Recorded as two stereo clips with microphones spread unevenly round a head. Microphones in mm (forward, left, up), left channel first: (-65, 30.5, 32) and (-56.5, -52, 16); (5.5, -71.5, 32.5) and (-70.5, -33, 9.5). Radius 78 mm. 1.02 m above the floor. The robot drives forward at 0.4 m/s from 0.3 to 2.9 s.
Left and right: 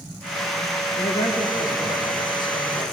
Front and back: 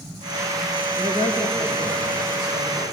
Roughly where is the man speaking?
Behind left.